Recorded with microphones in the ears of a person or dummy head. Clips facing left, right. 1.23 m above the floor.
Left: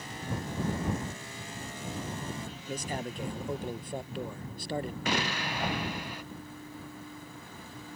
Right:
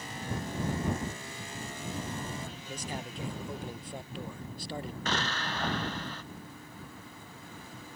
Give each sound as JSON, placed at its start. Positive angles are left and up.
{"t": 2.7, "sound": "a man speaking", "side_deg": 50}
{"t": 5.0, "sound": "an explosion", "side_deg": 15}